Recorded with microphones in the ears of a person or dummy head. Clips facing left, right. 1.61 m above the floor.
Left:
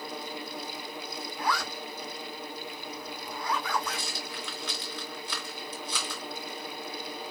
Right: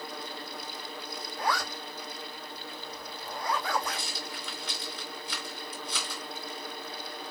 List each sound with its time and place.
1.4 s a zipper: 50° right (ahead or behind), 3 m
3.9 s a rattle: 45° left (ahead or behind), 2.0 m